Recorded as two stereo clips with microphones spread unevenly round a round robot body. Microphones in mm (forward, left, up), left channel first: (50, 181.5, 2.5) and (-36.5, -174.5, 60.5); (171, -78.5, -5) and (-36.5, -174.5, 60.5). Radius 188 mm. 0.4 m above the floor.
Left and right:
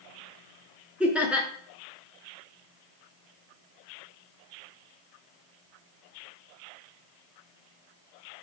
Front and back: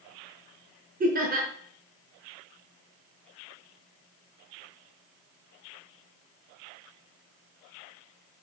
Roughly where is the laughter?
Behind left.